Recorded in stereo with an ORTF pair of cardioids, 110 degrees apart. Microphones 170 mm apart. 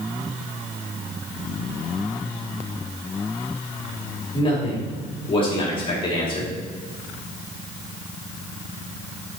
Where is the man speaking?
30° left, 3 m.